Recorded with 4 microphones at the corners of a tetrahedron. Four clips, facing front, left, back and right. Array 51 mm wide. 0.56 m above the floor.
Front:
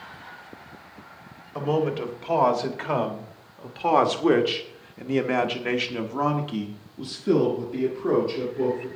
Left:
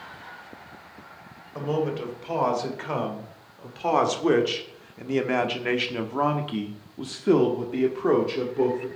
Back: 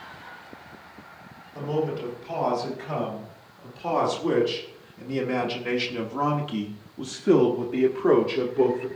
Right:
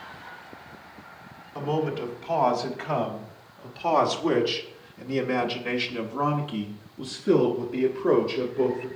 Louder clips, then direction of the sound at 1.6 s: Even, front 3 dB; 5° left.